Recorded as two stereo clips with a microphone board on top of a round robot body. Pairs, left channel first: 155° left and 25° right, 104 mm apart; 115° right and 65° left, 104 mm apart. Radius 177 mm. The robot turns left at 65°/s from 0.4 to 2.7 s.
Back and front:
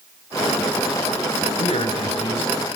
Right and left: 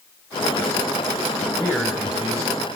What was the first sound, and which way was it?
A man speaking, straight behind.